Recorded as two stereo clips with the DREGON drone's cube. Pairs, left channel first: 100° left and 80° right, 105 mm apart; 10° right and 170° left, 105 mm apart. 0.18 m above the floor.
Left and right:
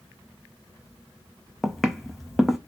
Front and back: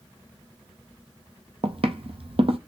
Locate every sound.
1.6 s footsteps: 170° right, 0.5 m